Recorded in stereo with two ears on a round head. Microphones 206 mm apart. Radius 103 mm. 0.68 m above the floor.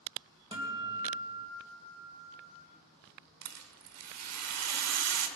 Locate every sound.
0.5 s a guitar: 20° right (ahead or behind), 3 m
3.4 s a rattle: 75° right (ahead or behind), 1.2 m